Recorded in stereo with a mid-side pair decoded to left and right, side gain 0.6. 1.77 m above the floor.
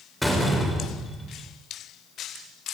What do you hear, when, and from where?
0.2 s a door slam: 5° left, 6 m